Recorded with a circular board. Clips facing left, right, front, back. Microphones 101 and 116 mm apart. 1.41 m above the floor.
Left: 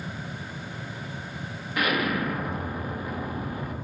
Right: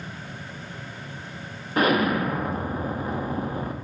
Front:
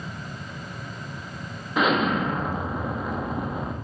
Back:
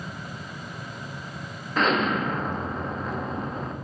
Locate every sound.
1.8 s an explosion: 75° right, 0.9 m